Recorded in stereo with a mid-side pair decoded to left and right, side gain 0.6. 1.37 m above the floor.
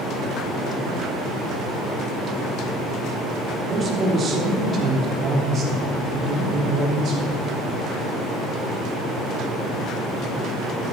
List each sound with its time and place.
3.5 s a man speaking: 35° right, 2.5 m; by 7.3 s 50° right, 6 m